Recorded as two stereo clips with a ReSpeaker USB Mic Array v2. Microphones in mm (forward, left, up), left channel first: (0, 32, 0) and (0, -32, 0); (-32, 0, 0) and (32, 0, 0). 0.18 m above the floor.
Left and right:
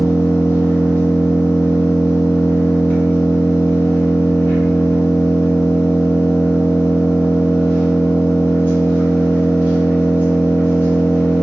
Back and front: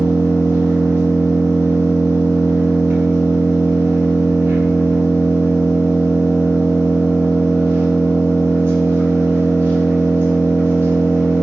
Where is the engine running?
40° left, 1.4 m.